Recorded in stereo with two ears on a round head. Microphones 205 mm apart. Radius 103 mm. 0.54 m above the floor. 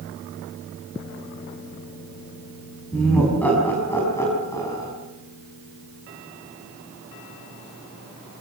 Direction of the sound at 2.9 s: 5° left (ahead or behind).